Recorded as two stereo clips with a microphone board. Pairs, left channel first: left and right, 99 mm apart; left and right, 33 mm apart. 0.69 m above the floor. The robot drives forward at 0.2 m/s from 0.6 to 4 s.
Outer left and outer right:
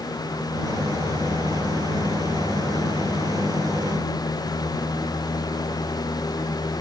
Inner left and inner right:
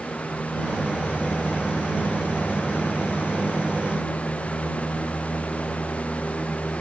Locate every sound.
Only background noise.